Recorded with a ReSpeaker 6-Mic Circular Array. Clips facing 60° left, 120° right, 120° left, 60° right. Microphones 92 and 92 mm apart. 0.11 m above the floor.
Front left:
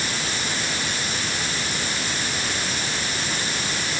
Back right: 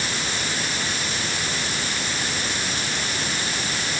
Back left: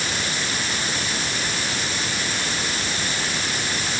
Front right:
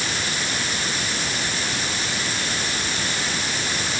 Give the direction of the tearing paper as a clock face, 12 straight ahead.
I don't hear tearing paper.